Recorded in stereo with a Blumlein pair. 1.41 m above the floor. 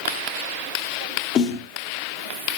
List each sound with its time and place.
1.4 s a snare drum: 35° left, 1.5 m